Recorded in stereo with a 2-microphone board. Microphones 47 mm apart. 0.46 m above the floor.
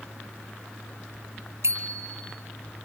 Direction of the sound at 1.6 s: 80° right.